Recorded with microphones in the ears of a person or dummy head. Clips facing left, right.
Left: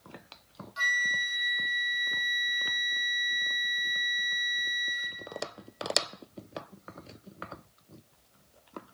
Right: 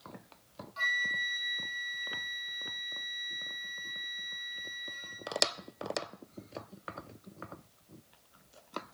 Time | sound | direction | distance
0.8 | a flute | 15° left (ahead or behind) | 0.7 m